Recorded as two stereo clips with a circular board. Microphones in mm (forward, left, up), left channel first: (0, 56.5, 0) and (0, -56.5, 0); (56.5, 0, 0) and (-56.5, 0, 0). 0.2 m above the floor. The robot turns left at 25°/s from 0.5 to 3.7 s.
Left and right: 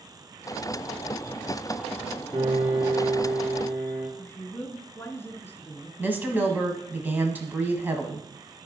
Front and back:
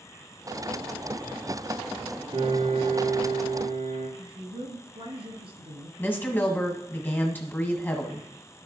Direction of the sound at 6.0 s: 45° right.